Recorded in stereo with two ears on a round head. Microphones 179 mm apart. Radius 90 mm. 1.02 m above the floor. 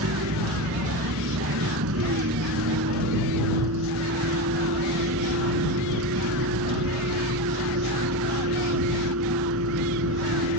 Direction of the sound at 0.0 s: 80° right.